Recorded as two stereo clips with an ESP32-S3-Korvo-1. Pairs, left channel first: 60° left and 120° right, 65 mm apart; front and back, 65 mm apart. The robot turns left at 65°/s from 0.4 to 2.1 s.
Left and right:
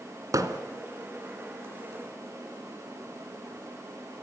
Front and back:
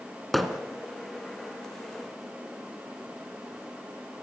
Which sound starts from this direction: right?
Hammering, at 0.3 s.